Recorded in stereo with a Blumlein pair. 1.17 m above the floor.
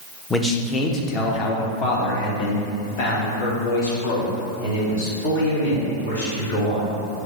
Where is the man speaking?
10° left, 0.8 m; by 7.0 s 60° left, 4 m.